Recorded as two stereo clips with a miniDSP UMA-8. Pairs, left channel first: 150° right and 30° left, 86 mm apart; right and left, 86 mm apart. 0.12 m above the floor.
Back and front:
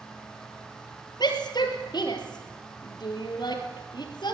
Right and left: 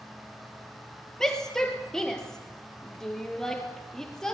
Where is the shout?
175° right, 3.5 m.